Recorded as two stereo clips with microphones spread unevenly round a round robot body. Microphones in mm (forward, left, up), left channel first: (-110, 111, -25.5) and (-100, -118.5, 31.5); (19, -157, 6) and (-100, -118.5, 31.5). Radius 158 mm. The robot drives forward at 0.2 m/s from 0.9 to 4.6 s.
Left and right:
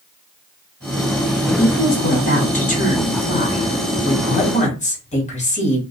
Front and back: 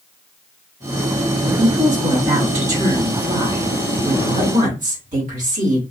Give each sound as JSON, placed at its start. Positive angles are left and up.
{"t": 1.4, "sound": "a woman speaking", "azimuth_deg": 120, "distance_m": 1.6}